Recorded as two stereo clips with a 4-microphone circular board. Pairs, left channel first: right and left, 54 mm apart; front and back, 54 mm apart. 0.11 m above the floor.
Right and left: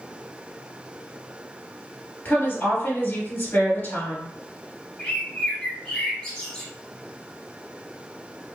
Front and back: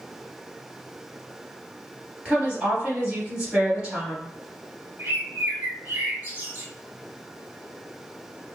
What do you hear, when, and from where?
2.2 s a woman speaking: 120° right, 2.0 m
5.0 s a bird: 160° right, 1.1 m